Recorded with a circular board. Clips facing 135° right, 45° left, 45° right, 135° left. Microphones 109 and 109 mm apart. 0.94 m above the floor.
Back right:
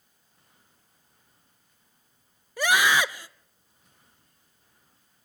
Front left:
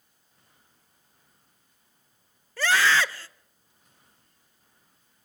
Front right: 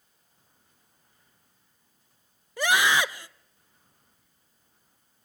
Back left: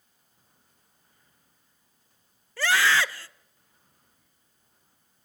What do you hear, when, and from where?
2.6 s a scream: 85° right, 0.5 m